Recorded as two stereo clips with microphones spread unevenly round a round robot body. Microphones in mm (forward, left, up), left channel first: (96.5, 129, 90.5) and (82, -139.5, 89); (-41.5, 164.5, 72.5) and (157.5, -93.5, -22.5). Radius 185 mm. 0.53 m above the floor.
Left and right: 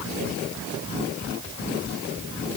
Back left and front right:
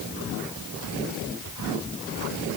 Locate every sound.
Only background noise.